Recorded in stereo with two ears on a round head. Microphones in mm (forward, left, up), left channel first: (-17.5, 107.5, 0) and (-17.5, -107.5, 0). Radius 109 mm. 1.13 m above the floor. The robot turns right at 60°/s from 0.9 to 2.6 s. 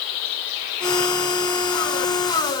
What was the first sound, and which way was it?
Only background noise.